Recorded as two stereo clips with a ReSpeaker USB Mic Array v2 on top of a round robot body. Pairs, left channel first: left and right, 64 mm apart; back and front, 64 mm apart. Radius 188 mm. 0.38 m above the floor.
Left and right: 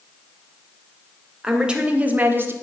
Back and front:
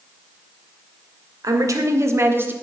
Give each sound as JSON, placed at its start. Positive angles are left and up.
{"t": 1.4, "sound": "a woman speaking", "azimuth_deg": -10, "distance_m": 2.5}